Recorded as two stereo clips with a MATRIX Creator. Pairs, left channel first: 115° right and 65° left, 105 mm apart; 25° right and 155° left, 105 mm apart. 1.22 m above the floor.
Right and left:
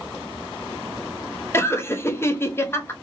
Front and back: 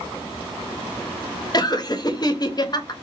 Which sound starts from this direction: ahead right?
Laughter, at 1.5 s.